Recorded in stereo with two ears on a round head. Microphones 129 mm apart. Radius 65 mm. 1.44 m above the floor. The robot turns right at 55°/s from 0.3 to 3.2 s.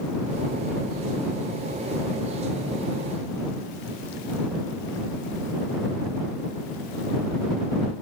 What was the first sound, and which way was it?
Only background noise.